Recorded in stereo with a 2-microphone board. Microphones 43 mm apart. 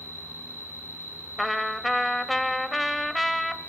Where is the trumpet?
Centre (ahead or behind), 0.8 m.